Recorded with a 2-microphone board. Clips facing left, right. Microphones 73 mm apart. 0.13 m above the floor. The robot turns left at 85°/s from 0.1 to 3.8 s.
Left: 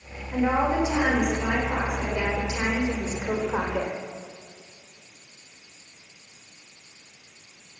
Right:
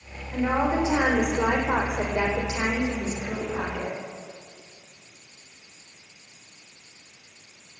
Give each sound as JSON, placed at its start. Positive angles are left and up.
{"t": 0.3, "sound": "a woman speaking", "azimuth_deg": 20, "distance_m": 6.5}